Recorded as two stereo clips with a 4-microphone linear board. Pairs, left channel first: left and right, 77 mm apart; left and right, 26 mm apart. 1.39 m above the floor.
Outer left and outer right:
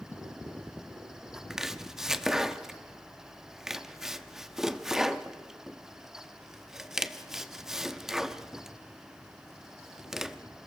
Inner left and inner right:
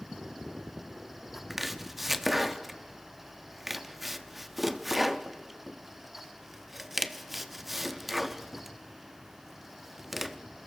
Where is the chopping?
5° right (ahead or behind), 0.9 m.